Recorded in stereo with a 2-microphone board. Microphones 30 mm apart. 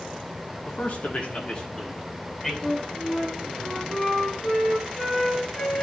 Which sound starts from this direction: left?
A man speaking, at 0.7 s.